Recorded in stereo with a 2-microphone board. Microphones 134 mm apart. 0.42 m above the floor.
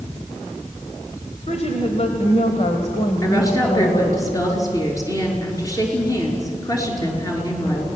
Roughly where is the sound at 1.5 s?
Left.